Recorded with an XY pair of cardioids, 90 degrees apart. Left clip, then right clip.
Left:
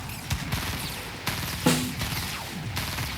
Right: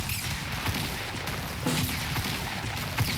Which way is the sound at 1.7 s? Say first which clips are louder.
Left 4 dB; 60° left.